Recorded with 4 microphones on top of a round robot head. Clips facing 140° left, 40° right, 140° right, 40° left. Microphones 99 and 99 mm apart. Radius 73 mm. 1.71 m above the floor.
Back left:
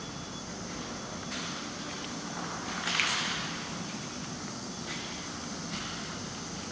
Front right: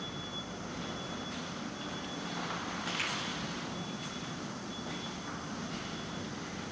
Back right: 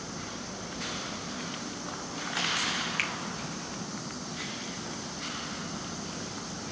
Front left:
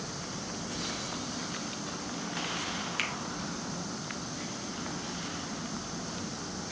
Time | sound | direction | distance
3.0 | a finger snap | 110° left | 1.6 m